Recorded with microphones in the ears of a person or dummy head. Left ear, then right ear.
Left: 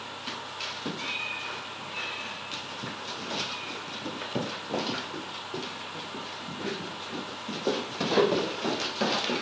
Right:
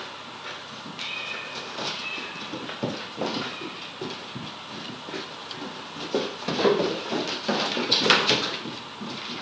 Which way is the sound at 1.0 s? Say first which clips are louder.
Right 3 dB; 45° left (ahead or behind).